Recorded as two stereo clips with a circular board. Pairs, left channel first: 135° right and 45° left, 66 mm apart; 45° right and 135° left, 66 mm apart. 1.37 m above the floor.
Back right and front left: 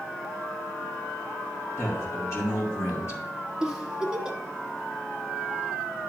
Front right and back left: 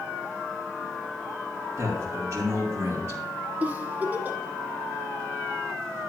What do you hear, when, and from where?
1.8 s a man speaking: straight behind, 2.5 m
3.6 s a giggle: 115° left, 0.8 m